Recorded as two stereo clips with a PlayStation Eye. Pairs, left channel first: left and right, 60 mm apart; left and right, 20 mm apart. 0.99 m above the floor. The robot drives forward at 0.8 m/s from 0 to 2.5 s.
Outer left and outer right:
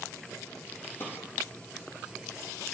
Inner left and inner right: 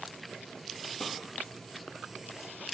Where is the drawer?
45° left (ahead or behind), 6.5 m.